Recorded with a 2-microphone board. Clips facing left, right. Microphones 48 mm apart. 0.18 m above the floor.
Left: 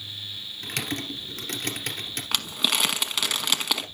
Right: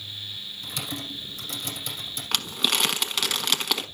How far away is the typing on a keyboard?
About 2 m.